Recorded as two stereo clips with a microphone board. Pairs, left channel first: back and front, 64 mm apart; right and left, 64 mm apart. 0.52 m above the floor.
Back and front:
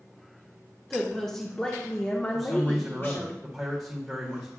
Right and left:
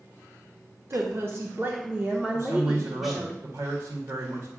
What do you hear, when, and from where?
0.9 s a woman speaking: 90° left, 1.3 m; by 3.3 s 175° right, 1.3 m
2.3 s a man speaking: 90° left, 1.8 m